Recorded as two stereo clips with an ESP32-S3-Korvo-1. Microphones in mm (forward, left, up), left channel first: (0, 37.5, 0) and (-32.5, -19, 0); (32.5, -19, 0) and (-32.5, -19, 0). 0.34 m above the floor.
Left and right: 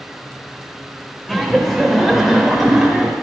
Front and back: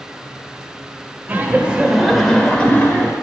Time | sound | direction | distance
1.3 | laughter | 150° left | 1.0 m